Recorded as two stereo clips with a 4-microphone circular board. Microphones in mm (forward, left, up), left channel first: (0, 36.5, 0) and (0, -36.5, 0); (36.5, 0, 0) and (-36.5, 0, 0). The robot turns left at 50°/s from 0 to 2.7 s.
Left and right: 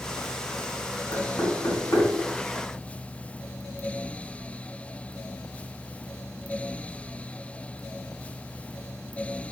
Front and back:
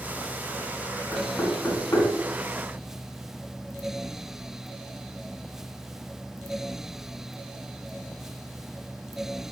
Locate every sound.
1.1 s knocking: 90° left, 3.5 m; by 2.1 s 45° left, 3.5 m